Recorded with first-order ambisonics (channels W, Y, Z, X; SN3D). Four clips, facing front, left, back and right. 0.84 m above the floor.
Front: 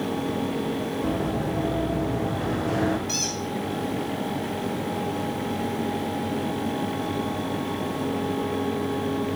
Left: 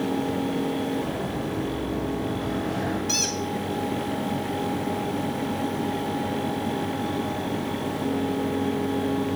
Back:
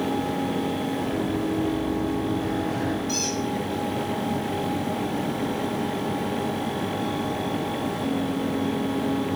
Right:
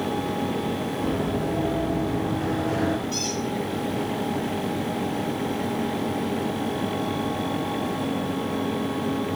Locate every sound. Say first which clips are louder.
1.0 s running footsteps: right 3 dB, back 1 dB; 35° right, 4 m; by 3.0 s 25° right, 3 m
3.1 s a squeak: left 2 dB, back 1 dB; 80° left, 4.5 m